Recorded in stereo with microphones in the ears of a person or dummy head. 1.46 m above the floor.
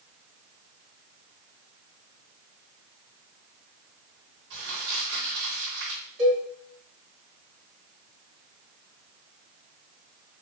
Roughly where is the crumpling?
Right.